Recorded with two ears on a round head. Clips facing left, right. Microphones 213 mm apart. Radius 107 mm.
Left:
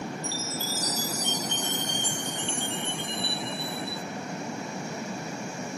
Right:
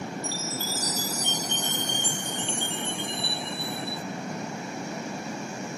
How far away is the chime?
About 0.7 m.